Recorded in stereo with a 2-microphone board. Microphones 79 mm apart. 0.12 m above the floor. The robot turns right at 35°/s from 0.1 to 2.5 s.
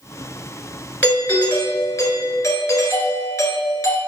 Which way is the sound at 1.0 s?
40° left.